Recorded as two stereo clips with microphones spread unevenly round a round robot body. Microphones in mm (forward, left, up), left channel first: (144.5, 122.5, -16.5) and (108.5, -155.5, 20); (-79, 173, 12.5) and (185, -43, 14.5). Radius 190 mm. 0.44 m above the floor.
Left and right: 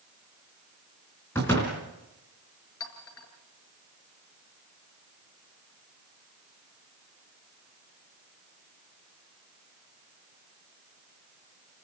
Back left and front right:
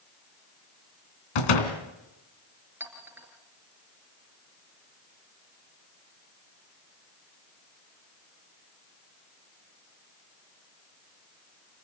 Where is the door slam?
165° left, 3 m.